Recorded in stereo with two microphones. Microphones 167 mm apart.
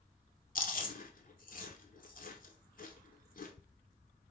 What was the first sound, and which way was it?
Chewing, 60° left (ahead or behind).